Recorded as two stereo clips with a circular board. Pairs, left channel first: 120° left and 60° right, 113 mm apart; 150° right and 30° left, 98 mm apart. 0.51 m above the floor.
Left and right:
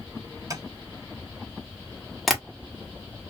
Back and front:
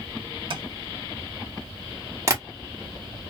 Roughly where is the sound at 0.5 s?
Ahead.